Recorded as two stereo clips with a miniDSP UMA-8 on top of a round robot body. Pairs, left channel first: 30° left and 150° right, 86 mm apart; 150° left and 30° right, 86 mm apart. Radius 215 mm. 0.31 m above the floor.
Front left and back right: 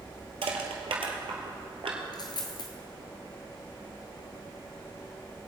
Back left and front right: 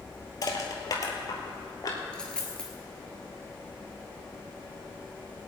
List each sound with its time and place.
0.4 s crushing: 160° right, 1.9 m
2.1 s a dropped coin: 70° left, 0.6 m